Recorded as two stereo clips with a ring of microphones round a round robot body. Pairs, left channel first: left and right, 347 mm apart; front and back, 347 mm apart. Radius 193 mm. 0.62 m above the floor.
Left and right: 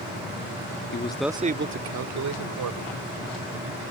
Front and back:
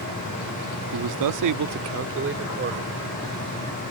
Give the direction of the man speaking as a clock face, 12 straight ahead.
7 o'clock.